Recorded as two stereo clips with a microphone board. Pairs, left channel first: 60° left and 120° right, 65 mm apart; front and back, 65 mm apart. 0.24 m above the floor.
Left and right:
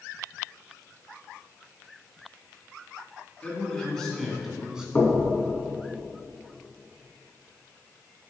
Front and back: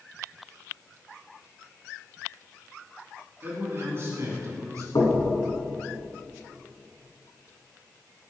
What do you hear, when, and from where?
3.4 s a man speaking: 130° left, 2.5 m; by 4.8 s 165° left, 2.5 m
5.0 s knocking: 5° right, 1.8 m